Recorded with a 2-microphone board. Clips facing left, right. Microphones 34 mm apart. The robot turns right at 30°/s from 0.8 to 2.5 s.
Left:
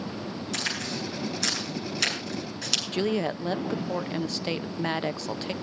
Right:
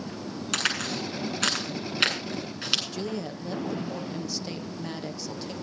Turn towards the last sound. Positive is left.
turn(degrees=50)  # may be behind; listen again after turning